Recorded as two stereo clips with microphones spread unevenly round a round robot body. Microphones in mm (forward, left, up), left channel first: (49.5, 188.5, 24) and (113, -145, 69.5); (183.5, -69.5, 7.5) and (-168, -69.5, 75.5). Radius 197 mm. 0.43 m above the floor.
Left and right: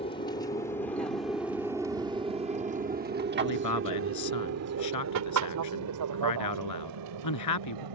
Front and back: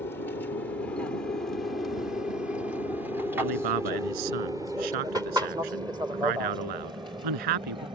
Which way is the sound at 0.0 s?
60° left.